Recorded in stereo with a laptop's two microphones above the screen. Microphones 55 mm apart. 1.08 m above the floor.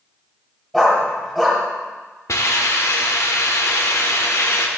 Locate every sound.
0.7 s a dog barking: centre (ahead or behind), 1.5 m
2.3 s a hiss: 65° left (ahead or behind), 1.1 m